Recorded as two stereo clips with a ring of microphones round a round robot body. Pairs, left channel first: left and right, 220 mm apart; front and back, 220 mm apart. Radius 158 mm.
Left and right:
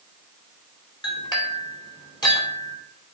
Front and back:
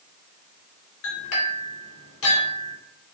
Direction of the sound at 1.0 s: 20° left.